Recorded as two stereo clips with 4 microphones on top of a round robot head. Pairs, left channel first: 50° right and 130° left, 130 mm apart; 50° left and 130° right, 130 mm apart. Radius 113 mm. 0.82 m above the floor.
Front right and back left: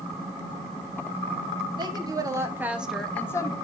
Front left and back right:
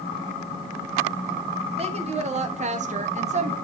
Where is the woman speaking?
170° right, 2 m; by 3.5 s 105° right, 1.1 m.